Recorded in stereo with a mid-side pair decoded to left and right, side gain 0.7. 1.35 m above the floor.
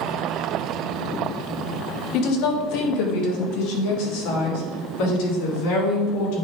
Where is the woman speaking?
60° left, 1.7 m; by 6.5 s 75° left, 4.5 m.